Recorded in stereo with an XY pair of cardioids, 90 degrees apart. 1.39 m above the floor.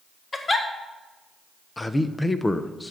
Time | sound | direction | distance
0.3 | a giggle | 35° left | 1.4 m
1.8 | a man speaking | 20° left | 0.8 m